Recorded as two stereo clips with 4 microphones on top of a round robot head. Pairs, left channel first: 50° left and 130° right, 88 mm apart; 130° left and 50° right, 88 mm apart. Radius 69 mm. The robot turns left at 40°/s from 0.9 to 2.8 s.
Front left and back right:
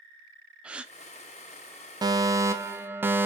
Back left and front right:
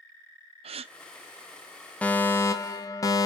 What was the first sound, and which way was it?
A gasp, 50° right.